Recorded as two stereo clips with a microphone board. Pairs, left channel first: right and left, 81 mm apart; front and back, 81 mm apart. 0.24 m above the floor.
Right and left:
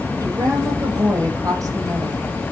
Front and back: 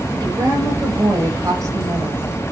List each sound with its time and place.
0.2 s a woman speaking: 140° left, 8 m; by 2.2 s 135° left, 9 m